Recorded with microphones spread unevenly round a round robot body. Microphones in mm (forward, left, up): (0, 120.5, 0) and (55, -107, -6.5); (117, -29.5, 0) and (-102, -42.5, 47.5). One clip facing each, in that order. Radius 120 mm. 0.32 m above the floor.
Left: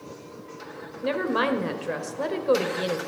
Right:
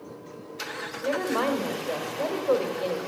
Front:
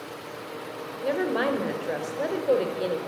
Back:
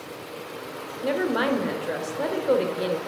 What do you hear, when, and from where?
1.0 s a woman speaking: 70° left, 1.4 m